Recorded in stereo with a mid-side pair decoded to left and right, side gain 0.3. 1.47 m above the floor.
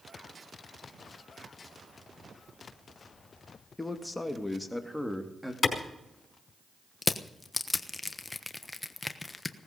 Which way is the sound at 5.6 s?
60° left.